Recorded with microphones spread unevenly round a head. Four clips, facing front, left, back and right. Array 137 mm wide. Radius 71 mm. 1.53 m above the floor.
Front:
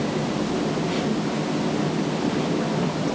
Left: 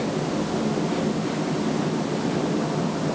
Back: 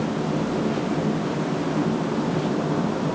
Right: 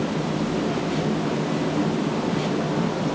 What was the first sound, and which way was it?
Only background noise.